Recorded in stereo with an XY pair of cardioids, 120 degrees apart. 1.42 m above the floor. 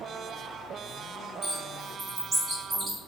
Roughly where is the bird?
Ahead right.